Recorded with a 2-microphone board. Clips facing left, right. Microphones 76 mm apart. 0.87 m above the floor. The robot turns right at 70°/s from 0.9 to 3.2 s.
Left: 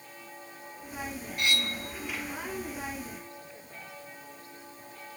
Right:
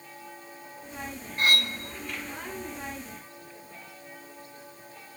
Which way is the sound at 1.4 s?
35° right (ahead or behind).